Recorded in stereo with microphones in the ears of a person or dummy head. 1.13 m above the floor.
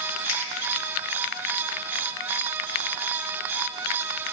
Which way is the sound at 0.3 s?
55° left (ahead or behind).